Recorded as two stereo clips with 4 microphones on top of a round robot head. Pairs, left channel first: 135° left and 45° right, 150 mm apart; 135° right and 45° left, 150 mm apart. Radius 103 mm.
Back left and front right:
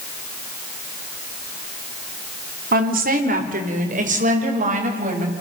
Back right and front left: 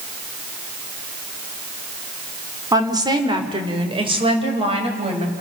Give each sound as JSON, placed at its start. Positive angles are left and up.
{"t": 2.7, "sound": "a woman speaking", "azimuth_deg": -20, "distance_m": 2.5}